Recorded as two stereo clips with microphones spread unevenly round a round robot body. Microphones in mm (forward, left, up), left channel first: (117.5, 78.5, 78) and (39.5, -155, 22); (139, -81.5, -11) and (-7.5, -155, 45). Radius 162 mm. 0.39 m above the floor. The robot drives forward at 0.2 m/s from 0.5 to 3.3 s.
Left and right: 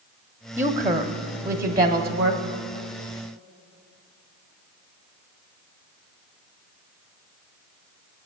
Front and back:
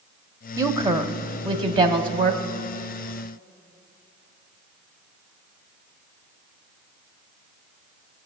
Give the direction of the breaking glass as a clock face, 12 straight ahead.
I don't hear breaking glass.